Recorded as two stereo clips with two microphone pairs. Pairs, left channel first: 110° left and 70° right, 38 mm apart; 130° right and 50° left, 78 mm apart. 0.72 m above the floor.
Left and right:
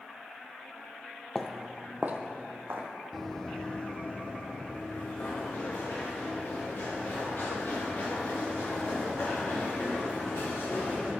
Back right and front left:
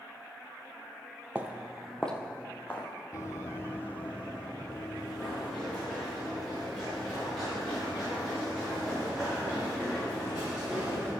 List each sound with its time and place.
1.4 s footsteps: 55° left, 0.7 m; by 2.9 s 70° right, 1.6 m
3.1 s running footsteps: 160° right, 1.1 m; by 11.1 s 135° left, 8 m